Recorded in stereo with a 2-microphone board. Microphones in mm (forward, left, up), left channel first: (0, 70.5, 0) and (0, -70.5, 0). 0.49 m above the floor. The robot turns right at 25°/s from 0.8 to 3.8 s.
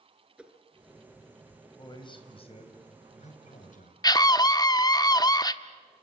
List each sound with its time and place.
0.4 s a whoosh: 10° right (ahead or behind), 2 m
1.8 s a man speaking: 30° left, 3.5 m; by 3.9 s 80° left, 3.5 m
4.0 s a scream: 25° left (ahead or behind), 0.8 m